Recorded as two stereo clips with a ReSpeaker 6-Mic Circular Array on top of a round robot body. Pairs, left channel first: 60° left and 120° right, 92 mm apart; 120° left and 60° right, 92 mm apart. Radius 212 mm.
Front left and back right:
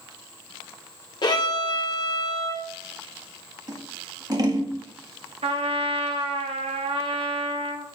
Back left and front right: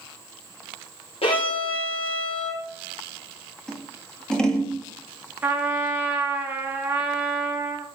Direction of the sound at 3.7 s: 160° right.